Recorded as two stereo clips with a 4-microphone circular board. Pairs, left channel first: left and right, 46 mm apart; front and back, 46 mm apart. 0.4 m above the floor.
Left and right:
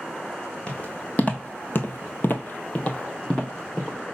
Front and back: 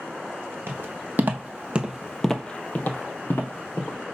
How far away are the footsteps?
About 1.2 m.